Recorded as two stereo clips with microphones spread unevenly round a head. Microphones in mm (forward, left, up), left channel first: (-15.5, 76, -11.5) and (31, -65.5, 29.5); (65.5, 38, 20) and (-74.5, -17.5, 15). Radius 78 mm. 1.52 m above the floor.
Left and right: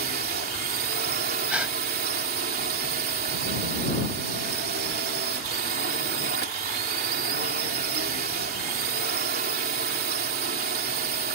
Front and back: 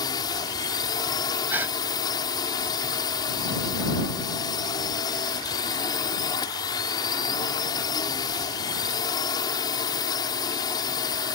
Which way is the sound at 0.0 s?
45° right.